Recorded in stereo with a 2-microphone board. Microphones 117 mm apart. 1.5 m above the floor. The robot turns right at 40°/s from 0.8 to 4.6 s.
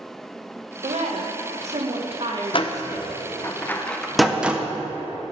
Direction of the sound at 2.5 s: 50° left (ahead or behind).